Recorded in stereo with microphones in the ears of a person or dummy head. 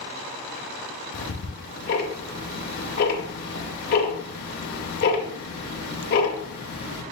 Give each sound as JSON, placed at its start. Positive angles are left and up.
{"t": 1.1, "sound": "ticking", "side_deg": 50, "distance_m": 0.7}